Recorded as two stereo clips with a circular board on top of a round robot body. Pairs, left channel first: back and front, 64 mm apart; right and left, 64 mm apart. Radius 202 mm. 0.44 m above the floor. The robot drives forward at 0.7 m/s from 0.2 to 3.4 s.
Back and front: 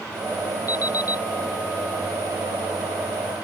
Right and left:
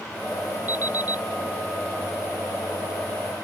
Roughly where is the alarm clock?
Behind left.